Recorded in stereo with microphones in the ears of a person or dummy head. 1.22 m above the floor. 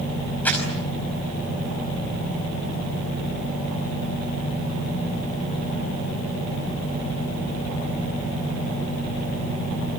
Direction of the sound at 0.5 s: 10° left (ahead or behind).